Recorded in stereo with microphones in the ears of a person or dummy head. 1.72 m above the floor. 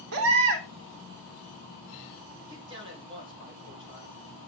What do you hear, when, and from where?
0.1 s a baby crying: 70° right (ahead or behind), 1.5 m
2.5 s a man speaking: 30° right (ahead or behind), 2.5 m